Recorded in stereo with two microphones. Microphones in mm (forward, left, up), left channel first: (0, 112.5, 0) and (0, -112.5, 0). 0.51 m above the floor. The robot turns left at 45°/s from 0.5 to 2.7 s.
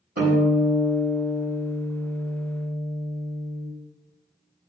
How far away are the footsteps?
No footsteps in this recording.